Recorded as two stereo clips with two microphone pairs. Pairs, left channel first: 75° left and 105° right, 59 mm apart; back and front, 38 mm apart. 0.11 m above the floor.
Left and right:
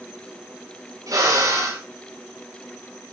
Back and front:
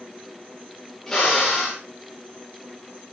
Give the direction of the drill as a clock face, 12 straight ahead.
3 o'clock.